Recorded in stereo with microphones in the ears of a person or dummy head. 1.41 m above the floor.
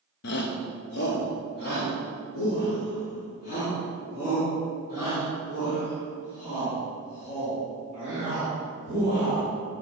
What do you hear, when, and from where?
0.2 s a shout: 50° left (ahead or behind), 0.5 m; by 9.5 s 55° left (ahead or behind), 7.5 m